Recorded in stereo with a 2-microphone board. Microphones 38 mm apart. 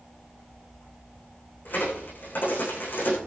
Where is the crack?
55° left (ahead or behind), 9.5 m.